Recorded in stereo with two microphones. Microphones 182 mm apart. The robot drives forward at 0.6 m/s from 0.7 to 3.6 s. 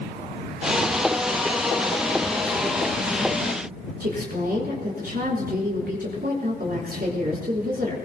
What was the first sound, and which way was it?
A woman speaking, 60° right (ahead or behind).